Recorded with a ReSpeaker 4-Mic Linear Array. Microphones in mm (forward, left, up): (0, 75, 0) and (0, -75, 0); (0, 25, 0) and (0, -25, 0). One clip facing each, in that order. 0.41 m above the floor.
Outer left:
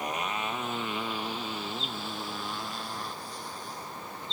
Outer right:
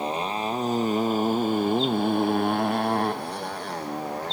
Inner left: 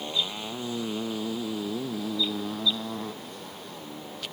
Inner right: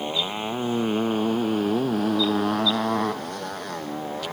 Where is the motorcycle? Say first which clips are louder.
Outer right 6 dB, inner right 5 dB; 30° right (ahead or behind); by 4.3 s 75° right (ahead or behind).